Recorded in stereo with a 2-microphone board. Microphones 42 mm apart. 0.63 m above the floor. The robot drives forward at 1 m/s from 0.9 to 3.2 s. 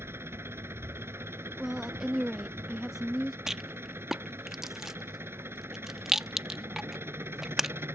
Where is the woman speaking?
10° right (ahead or behind).